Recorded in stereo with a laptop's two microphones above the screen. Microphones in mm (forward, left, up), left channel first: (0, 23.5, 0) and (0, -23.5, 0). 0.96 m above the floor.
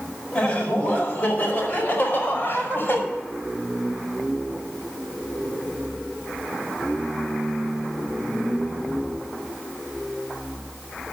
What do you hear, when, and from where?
0.3 s laughter: 20° left (ahead or behind), 4.5 m; by 3.0 s 45° left (ahead or behind), 5.5 m